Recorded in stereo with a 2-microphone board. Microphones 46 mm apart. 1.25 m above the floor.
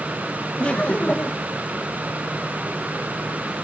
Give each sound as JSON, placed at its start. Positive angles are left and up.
{"t": 0.6, "sound": "laughter", "side_deg": 30}